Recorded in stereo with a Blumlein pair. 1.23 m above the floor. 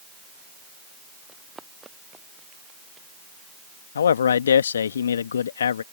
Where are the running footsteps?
15° right.